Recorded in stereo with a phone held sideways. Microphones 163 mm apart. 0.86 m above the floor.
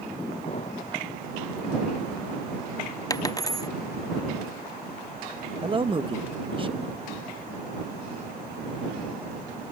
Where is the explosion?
40° left (ahead or behind).